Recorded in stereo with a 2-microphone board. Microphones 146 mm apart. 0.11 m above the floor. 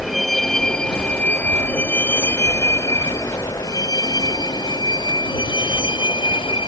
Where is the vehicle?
Centre (ahead or behind); by 6.7 s 35° left (ahead or behind).